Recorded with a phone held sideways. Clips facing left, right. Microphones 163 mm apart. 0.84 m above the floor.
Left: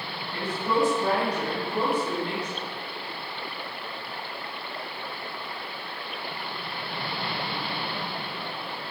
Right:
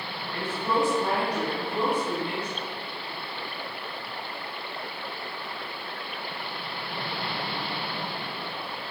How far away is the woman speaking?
About 1.7 m.